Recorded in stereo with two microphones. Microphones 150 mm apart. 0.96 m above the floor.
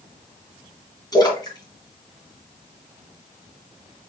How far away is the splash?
About 1.8 m.